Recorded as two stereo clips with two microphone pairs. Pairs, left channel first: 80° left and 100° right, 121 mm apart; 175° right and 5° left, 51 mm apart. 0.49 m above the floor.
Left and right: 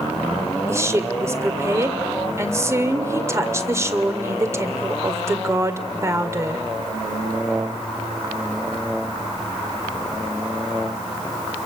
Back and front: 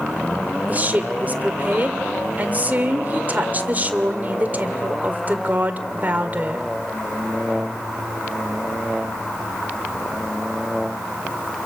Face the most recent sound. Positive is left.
turn(degrees=-40)